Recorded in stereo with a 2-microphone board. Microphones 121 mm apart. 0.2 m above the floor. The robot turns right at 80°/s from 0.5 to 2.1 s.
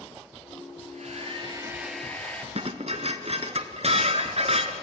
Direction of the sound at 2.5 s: 60° right (ahead or behind).